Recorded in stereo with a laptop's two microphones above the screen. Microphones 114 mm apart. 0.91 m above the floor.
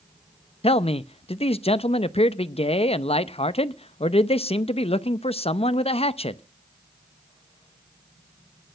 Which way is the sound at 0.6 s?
60° left (ahead or behind).